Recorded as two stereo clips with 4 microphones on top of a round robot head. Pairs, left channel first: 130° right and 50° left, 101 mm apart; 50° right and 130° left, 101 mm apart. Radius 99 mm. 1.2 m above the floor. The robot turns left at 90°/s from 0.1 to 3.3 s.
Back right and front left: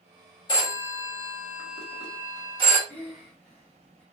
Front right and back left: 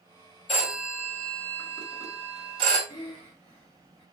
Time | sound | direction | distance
0.5 | a phone ringing | 80° right | 1.2 m
2.9 | breathing | 5° right | 0.8 m